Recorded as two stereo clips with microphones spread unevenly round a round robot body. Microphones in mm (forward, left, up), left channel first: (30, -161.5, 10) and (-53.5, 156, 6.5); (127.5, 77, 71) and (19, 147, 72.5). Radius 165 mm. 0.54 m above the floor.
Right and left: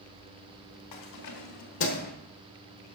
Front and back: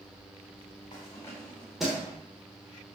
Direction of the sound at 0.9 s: 95° right.